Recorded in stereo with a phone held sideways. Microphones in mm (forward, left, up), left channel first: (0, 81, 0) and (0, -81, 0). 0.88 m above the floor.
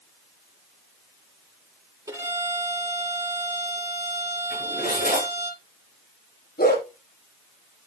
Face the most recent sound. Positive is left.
turn(degrees=85)